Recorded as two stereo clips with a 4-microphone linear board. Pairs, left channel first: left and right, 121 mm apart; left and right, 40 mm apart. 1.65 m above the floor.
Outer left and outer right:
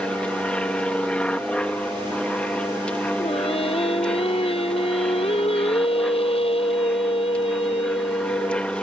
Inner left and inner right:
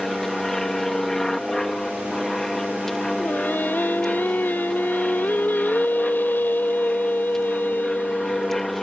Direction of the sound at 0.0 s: 10° left (ahead or behind).